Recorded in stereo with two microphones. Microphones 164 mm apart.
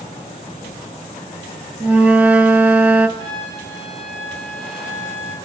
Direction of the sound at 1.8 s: 10° right (ahead or behind).